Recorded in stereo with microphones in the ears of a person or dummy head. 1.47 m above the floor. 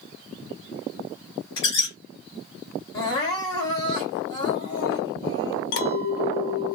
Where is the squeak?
30° left (ahead or behind), 1.9 m.